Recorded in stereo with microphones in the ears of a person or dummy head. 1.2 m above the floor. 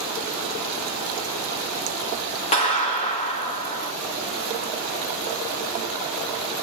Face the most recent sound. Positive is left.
turn(degrees=35)  # may be behind; listen again after turning